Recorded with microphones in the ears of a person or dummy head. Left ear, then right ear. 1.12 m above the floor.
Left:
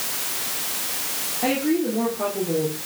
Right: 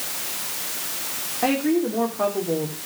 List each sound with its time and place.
1.4 s a woman speaking: 50° right (ahead or behind), 2.5 m